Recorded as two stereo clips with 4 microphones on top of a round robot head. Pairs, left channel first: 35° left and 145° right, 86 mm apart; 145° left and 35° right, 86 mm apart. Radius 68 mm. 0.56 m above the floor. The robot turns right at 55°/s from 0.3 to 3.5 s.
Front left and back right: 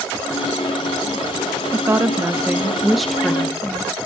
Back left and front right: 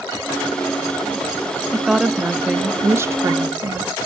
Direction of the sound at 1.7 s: 125° right.